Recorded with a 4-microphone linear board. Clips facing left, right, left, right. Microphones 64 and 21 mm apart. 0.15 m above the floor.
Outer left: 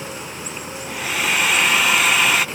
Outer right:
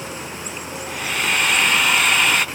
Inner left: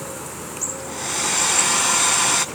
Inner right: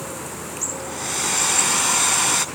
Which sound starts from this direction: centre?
A hair dryer, at 0.9 s.